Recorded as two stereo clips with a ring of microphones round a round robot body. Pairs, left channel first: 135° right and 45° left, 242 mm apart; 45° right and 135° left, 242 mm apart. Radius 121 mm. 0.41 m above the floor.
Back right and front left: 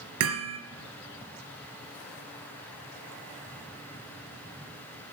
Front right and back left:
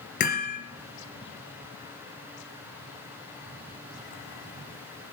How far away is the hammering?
About 2.5 m.